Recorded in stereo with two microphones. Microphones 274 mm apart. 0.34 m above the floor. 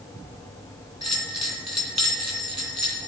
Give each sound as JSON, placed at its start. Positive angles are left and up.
{"t": 1.0, "sound": "a bell", "side_deg": 75, "distance_m": 2.0}